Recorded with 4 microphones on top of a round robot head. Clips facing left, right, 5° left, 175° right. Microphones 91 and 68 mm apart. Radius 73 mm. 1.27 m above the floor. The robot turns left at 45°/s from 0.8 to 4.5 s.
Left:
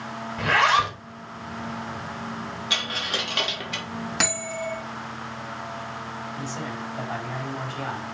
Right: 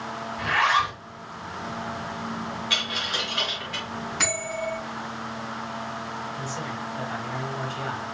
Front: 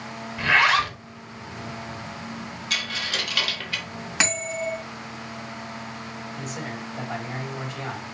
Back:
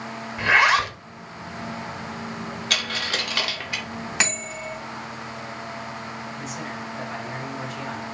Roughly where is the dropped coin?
Behind.